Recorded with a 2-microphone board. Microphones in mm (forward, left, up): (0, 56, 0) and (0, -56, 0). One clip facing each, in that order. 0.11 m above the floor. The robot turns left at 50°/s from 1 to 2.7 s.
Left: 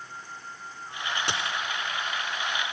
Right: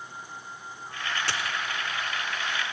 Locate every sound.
1.3 s a dropped coin: 20° left (ahead or behind), 1.2 m; by 1.6 s 30° left (ahead or behind), 1.2 m